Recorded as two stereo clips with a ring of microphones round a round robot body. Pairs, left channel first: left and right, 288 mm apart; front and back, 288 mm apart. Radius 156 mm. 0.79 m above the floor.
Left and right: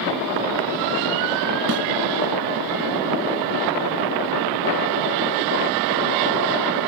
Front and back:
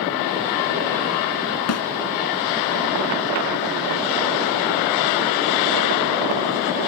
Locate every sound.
1.7 s a snare drum: 35° right